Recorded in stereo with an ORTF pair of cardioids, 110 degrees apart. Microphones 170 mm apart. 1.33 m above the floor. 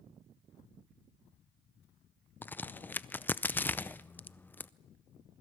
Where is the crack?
10° left, 0.5 m.